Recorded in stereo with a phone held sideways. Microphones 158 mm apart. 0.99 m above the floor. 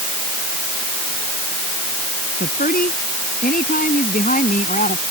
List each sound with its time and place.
2.4 s a woman speaking: 70° left (ahead or behind); by 5.0 s 55° left (ahead or behind)